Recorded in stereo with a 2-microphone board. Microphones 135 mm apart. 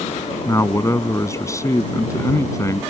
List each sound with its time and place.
0.5 s a man speaking: 25° left (ahead or behind)